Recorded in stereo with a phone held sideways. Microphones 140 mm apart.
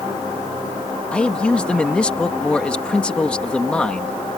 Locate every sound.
1.1 s a man speaking: 10° left (ahead or behind)